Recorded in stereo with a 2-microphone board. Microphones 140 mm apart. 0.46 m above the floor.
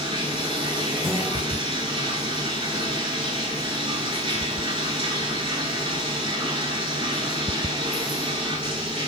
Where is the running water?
40° right (ahead or behind), 0.7 m.